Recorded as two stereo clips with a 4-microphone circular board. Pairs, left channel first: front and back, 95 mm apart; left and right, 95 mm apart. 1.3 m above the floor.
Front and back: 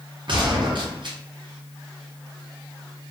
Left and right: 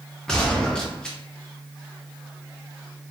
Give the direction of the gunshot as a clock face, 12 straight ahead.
6 o'clock.